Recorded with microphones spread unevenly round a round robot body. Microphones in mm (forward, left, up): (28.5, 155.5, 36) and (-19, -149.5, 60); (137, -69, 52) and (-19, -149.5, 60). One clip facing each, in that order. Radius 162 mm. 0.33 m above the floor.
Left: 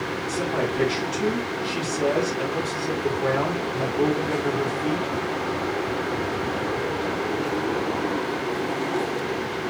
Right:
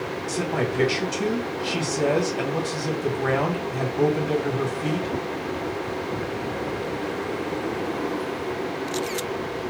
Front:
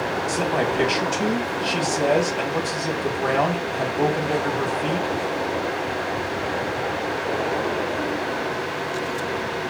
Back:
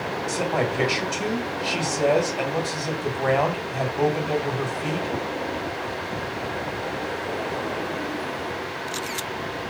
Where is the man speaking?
65° right, 1.7 m.